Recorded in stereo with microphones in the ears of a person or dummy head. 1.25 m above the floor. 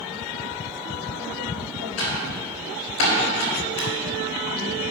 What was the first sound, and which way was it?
Typing on a keyboard, 80° left.